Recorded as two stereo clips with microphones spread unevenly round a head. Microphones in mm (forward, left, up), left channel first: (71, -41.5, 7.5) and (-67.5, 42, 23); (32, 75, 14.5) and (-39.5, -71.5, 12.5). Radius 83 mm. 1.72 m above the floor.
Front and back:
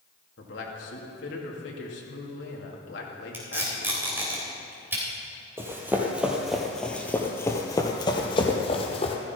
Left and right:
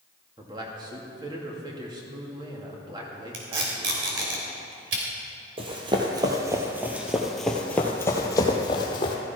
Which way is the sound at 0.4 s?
50° right.